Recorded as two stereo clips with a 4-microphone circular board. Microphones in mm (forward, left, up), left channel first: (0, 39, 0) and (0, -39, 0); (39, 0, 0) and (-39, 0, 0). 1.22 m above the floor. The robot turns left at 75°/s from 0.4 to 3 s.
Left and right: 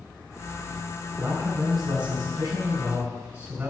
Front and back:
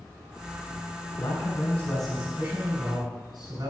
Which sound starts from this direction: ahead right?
A man speaking, at 1.2 s.